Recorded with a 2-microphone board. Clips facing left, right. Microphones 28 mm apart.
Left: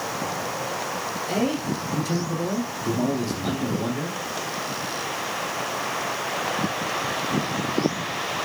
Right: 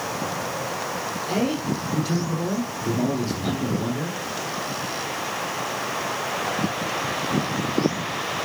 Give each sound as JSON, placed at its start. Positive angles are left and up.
{"t": 1.3, "sound": "a man speaking", "side_deg": -20, "distance_m": 6.0}